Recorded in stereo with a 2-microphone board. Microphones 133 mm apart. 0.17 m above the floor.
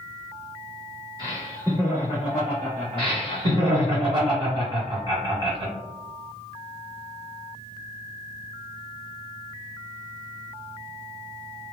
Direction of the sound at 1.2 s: 30° right (ahead or behind).